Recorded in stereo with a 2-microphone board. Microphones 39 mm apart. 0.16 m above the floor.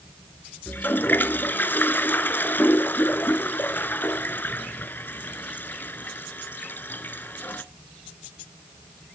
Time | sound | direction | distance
0.7 | a toilet flushing | 60° left (ahead or behind) | 0.6 m